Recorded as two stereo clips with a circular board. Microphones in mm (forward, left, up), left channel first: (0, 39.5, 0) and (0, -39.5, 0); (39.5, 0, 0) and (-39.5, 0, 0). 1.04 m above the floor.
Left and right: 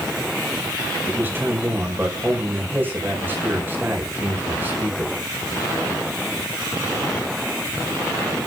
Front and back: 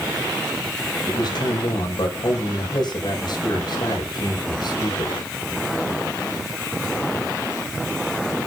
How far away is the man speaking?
About 5 m.